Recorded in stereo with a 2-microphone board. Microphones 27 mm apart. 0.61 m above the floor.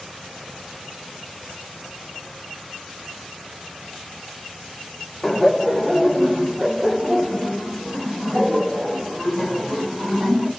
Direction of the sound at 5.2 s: 5° left (ahead or behind).